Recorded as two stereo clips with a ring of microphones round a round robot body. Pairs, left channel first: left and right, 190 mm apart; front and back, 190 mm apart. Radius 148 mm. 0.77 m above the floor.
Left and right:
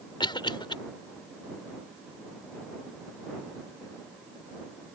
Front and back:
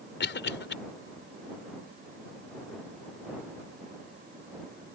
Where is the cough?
25° left.